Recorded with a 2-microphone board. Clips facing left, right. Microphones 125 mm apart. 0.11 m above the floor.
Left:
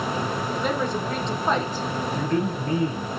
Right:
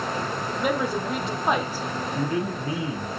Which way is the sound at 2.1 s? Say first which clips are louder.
Left 1 dB; 10° right (ahead or behind).